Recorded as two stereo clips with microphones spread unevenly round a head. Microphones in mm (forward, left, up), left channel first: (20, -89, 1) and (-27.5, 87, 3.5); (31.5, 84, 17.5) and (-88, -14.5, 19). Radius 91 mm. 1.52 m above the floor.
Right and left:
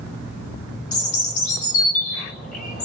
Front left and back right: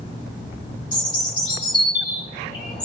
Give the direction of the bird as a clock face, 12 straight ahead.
1 o'clock.